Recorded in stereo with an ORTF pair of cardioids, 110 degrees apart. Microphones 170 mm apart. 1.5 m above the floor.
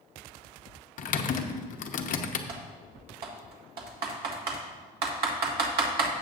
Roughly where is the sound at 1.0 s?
Ahead left.